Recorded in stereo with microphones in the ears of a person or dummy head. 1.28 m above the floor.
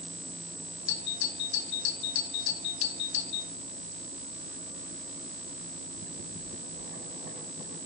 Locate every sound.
0.9 s a doorbell: 60° left (ahead or behind), 2 m